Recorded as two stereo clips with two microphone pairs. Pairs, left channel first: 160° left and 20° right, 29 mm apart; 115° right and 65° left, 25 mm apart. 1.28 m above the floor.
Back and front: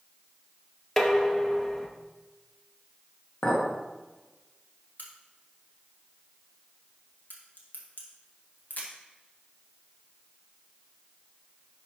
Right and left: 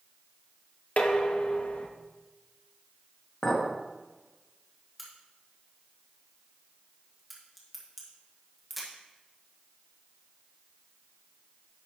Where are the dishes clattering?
125° right, 0.8 m.